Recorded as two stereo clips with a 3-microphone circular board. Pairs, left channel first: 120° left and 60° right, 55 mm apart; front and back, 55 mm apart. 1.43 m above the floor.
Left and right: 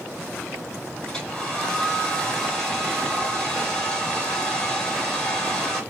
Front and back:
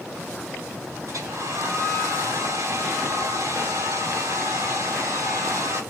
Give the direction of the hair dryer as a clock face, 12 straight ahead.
5 o'clock.